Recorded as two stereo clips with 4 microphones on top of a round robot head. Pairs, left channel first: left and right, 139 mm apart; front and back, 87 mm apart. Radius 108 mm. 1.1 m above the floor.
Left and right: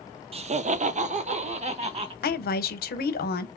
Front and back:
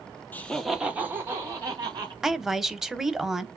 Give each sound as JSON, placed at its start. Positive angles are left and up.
{"t": 0.3, "sound": "laughter", "azimuth_deg": -65, "distance_m": 0.6}
{"t": 2.2, "sound": "a woman speaking", "azimuth_deg": 95, "distance_m": 0.7}